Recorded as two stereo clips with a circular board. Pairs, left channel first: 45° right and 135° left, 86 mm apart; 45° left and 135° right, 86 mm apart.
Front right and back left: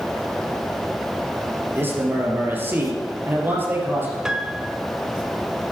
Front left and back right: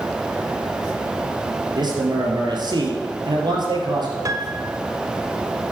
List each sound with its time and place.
1.8 s a man speaking: 160° right, 3.5 m
4.2 s a piano: 145° right, 0.6 m